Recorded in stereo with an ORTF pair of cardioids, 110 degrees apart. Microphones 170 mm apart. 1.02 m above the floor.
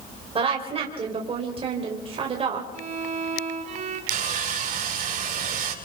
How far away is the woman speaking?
About 4 m.